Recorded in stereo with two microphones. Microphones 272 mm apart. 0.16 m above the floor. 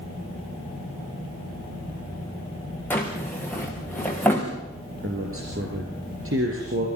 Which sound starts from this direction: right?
A man speaking, at 5.0 s.